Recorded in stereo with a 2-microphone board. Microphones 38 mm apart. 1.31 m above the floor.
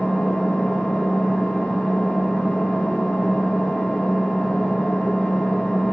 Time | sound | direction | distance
0.0 | an engine running | 40° left (ahead or behind) | 1.0 m